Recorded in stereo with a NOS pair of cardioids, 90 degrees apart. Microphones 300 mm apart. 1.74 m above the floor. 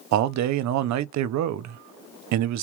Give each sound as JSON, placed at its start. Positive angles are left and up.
{"t": 0.1, "sound": "a man speaking", "azimuth_deg": -70, "distance_m": 0.6}